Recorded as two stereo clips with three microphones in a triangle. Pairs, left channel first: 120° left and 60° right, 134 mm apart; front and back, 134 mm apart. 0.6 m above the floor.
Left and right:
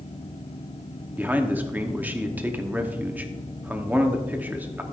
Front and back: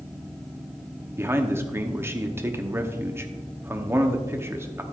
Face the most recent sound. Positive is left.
turn(degrees=-125)